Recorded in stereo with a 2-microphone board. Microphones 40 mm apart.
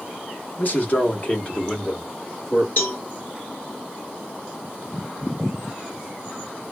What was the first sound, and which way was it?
A man speaking, 45° left (ahead or behind).